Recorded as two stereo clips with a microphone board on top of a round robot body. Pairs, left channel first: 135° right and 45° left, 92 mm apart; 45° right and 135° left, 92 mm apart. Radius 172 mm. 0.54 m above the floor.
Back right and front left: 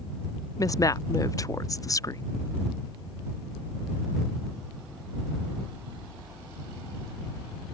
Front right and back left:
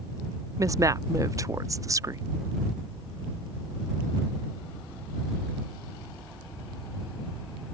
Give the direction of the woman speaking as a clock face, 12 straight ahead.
6 o'clock.